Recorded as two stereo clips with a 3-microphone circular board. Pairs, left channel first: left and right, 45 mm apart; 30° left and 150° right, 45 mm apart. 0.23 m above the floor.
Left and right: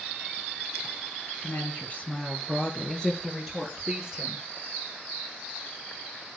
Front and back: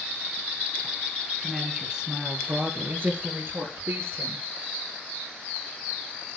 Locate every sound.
1.4 s a woman speaking: 125° left, 3.5 m; by 4.4 s 170° right, 4.5 m